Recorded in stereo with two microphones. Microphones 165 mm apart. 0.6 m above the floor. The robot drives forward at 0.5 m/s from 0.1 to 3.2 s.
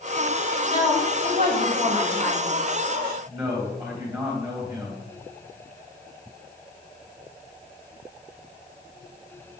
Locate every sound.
0.7 s a woman speaking: 40° right (ahead or behind), 3.5 m; by 2.5 s 55° right (ahead or behind), 3 m
3.3 s a man speaking: 25° right (ahead or behind), 3 m